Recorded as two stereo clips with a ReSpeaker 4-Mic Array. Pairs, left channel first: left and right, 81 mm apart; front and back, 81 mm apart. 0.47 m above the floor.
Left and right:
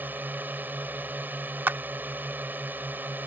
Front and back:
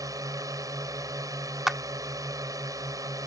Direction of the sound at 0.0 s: 150° right.